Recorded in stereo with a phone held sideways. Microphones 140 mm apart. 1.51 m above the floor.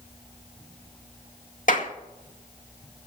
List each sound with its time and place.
1.7 s a clap: 65° left (ahead or behind), 2 m